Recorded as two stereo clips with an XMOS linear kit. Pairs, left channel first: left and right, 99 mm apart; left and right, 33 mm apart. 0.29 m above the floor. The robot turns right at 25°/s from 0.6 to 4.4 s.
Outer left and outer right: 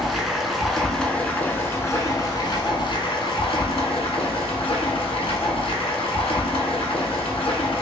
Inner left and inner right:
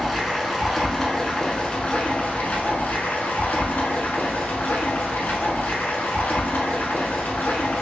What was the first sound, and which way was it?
Running water, straight ahead.